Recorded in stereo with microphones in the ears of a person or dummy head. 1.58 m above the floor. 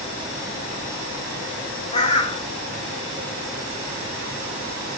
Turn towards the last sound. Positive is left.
turn(degrees=20)  # may be behind; listen again after turning